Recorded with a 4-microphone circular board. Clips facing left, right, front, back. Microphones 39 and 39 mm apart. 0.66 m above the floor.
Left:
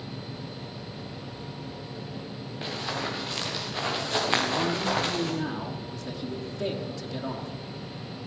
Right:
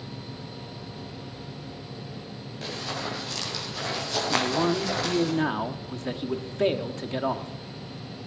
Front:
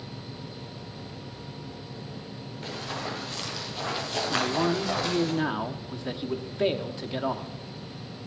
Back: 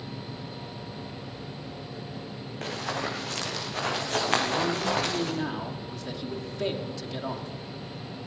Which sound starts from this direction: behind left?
Running footsteps, at 2.6 s.